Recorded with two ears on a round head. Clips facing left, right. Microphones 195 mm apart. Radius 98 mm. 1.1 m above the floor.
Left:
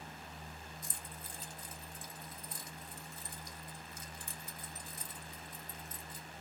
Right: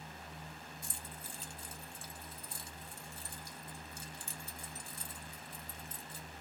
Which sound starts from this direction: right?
Keys jangling, at 0.8 s.